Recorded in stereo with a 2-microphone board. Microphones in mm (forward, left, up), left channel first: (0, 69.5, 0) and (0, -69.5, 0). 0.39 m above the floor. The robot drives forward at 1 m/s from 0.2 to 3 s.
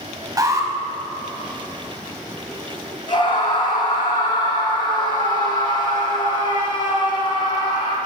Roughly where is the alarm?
Right.